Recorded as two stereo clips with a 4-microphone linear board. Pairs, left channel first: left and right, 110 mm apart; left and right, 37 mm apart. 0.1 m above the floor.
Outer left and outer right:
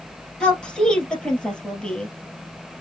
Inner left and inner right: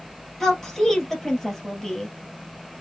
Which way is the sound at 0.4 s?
10° left (ahead or behind).